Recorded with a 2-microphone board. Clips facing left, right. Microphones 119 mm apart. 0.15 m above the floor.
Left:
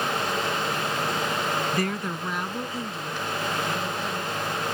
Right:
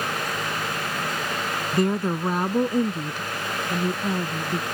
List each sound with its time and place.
1.7 s a woman speaking: 20° right (ahead or behind); by 4.6 s 60° right (ahead or behind)